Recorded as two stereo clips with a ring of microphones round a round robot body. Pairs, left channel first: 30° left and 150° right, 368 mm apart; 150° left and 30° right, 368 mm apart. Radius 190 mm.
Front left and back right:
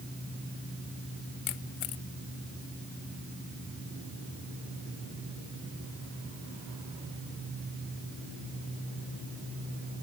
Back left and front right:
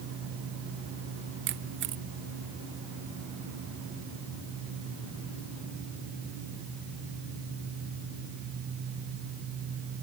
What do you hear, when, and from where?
1.5 s a camera shutter: 30° left